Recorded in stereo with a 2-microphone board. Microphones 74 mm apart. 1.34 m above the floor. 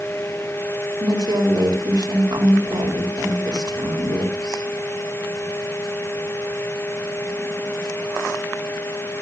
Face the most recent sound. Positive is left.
turn(degrees=-80)